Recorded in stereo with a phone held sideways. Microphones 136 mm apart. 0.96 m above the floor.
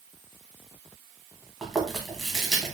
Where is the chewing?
Centre (ahead or behind), 1.0 m.